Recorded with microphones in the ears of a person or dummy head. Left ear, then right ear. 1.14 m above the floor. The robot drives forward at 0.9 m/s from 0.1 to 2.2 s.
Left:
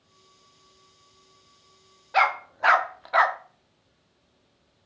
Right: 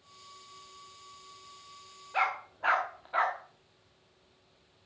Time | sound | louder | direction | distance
2.1 | a dog barking | left 8 dB | 35° left (ahead or behind) | 0.9 m